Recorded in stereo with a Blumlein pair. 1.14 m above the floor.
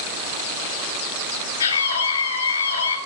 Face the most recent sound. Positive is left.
turn(degrees=70)